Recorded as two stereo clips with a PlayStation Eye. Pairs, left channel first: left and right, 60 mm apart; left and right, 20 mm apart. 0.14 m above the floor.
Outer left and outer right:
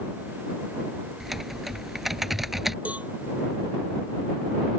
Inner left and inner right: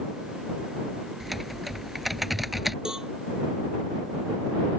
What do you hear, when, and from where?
1.2 s typing on a keyboard: 5° right (ahead or behind)
2.9 s a cowbell: 25° right (ahead or behind)